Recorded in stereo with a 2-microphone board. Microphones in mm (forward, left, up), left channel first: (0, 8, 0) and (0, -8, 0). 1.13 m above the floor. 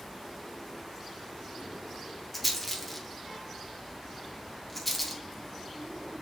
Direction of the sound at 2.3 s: 15° left (ahead or behind).